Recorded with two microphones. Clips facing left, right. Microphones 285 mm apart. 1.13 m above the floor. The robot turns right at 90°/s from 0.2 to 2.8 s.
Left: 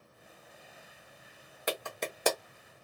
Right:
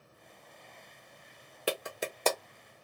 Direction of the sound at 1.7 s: 35° right (ahead or behind).